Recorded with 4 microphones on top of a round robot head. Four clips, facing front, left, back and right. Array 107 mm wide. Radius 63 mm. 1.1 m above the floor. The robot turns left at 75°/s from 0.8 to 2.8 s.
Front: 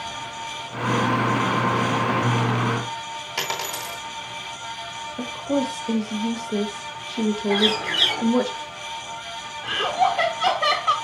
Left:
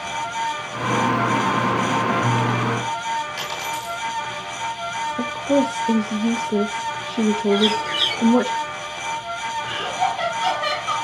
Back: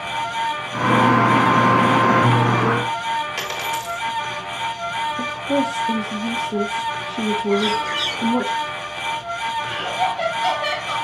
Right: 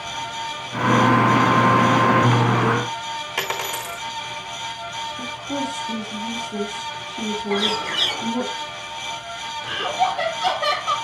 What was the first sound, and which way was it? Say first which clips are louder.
A dropped coin: right 1 dB, back 4 dB; 60° right.